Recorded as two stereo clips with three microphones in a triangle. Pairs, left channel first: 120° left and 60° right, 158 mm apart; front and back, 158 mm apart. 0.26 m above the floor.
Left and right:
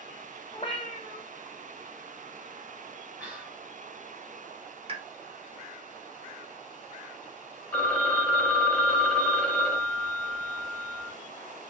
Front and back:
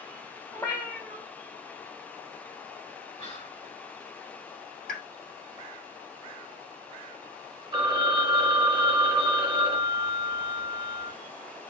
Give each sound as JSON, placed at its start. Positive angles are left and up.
{"t": 0.5, "sound": "a cat meowing", "azimuth_deg": 70, "distance_m": 1.0}
{"t": 3.2, "sound": "whispering", "azimuth_deg": 15, "distance_m": 1.8}
{"t": 4.9, "sound": "a pop", "azimuth_deg": -10, "distance_m": 0.8}
{"t": 7.7, "sound": "a phone ringing", "azimuth_deg": -170, "distance_m": 0.9}